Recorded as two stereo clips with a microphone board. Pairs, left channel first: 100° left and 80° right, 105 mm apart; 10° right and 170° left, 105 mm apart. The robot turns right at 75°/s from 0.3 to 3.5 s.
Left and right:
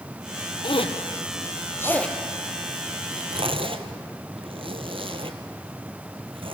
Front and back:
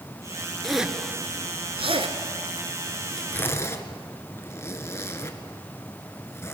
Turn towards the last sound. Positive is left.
turn(degrees=-70)